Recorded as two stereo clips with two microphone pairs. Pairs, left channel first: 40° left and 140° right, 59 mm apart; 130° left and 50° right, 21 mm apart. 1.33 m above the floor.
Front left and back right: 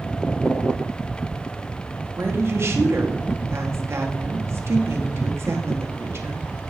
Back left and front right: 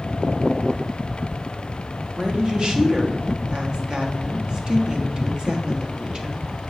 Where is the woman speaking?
100° right, 1.3 m.